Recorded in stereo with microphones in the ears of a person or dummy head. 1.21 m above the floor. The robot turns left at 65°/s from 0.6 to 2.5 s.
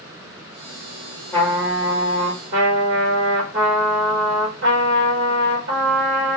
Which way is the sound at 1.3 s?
10° left.